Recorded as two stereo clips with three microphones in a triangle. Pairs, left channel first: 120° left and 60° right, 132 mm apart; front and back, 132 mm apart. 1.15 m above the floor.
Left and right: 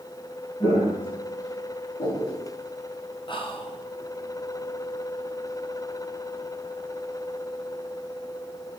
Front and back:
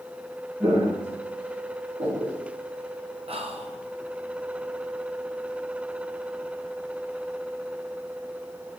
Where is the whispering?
160° left, 0.7 m.